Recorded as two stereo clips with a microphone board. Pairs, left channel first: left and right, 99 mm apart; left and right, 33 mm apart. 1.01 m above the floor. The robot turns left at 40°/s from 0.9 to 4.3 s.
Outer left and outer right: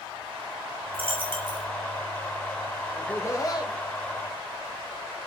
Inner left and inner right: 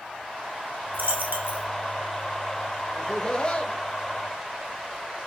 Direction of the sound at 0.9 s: 65° right (ahead or behind).